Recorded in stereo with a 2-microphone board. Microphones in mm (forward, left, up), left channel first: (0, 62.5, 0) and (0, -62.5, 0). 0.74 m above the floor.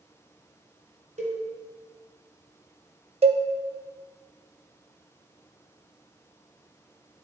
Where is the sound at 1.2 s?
75° right (ahead or behind), 1.9 m.